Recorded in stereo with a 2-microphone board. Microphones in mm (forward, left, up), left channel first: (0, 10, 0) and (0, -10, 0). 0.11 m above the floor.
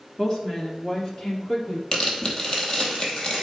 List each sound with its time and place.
0.2 s a woman speaking: 30° left (ahead or behind), 1.8 m; by 1.8 s 45° left (ahead or behind), 3 m
1.9 s tearing paper: 35° left (ahead or behind), 2.5 m